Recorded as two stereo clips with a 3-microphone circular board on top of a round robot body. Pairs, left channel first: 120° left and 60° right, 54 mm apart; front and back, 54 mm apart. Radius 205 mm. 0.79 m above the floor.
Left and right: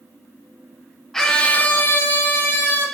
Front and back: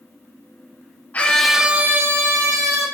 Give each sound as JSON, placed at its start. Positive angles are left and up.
{"t": 1.1, "sound": "a scream", "azimuth_deg": 40, "distance_m": 0.6}